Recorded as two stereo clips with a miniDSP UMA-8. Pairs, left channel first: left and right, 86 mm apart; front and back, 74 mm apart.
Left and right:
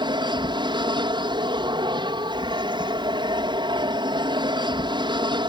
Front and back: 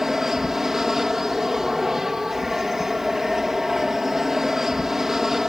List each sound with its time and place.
0.0 s an aircraft: 95° right